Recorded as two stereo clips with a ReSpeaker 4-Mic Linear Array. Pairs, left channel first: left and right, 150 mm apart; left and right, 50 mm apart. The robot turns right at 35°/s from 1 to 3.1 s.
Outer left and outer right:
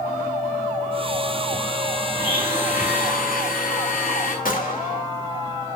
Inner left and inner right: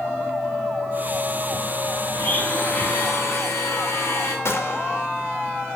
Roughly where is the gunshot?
Left.